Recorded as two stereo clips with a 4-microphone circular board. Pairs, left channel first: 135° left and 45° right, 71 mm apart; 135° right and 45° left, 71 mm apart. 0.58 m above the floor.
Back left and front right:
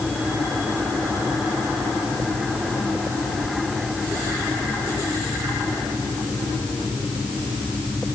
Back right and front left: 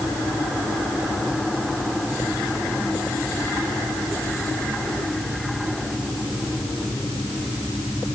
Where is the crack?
No crack in this recording.